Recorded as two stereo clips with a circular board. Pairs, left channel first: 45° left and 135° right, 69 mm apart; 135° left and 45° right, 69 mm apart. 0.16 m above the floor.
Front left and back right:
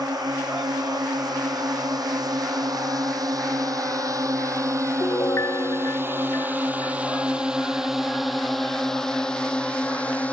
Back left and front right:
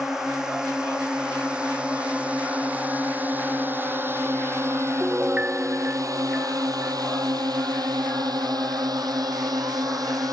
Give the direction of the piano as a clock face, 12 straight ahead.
12 o'clock.